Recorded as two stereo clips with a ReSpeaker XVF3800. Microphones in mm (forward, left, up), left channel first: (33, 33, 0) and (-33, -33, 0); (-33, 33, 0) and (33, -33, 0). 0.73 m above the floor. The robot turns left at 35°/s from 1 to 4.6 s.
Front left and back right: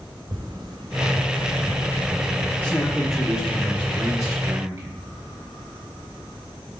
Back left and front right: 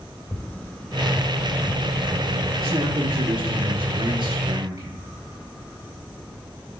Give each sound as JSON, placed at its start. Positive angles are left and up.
{"t": 0.3, "sound": "tapping", "azimuth_deg": -150, "distance_m": 0.9}
{"t": 2.6, "sound": "a man speaking", "azimuth_deg": -25, "distance_m": 1.0}